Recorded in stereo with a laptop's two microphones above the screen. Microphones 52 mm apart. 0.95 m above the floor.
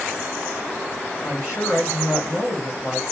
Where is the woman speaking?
65° left (ahead or behind), 2 m.